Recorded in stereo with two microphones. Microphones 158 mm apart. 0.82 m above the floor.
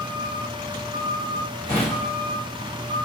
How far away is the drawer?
About 1.6 m.